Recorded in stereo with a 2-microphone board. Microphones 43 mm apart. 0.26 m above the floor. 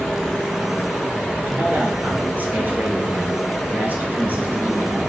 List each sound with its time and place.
1.5 s a man speaking: 45° right (ahead or behind), 3.5 m